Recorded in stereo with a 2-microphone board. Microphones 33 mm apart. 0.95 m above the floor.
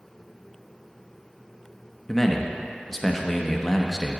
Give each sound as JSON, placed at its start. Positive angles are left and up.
{"t": 2.1, "sound": "a man speaking", "side_deg": 10, "distance_m": 0.9}